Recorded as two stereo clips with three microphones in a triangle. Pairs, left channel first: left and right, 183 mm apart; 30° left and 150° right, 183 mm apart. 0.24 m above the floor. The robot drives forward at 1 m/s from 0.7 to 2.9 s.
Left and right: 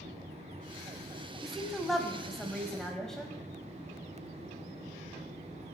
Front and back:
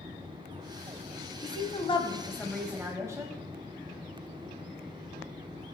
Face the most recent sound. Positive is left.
turn(degrees=175)